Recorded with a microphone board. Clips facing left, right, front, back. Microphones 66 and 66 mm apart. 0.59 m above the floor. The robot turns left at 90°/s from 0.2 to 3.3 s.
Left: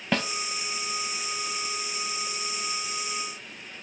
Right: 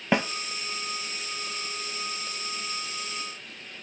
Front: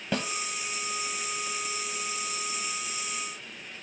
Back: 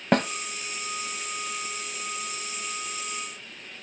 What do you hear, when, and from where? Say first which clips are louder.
0.1 s a snare drum: right 3 dB, back 8 dB; 155° right, 0.7 m; by 0.3 s 165° right, 0.7 m